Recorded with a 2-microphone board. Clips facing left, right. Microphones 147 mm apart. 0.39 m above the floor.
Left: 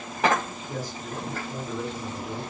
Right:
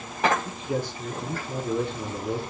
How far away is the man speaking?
About 5.5 m.